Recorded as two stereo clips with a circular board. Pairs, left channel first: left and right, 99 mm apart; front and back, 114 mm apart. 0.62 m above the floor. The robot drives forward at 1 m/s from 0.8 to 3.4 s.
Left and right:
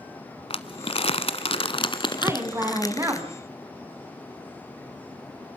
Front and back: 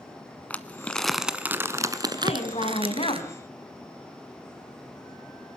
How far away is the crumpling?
About 1.4 m.